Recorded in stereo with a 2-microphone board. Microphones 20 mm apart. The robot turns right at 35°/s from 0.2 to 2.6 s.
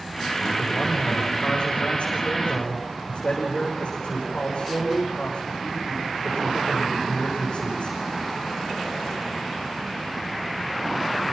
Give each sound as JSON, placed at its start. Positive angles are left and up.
{"t": 0.6, "sound": "a man speaking", "azimuth_deg": 30, "distance_m": 9.0}